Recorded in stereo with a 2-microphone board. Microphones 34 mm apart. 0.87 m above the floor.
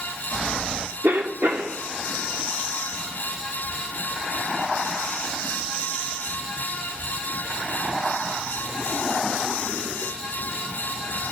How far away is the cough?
About 2 m.